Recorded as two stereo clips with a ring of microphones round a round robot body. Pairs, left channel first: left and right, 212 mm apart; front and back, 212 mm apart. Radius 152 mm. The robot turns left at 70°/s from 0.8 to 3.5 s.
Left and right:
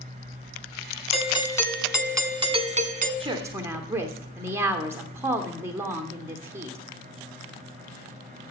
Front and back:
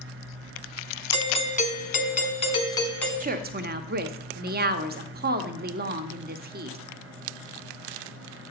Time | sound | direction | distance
1.1 | a doorbell | 55° left | 1.3 m
3.2 | a woman speaking | 145° right | 0.9 m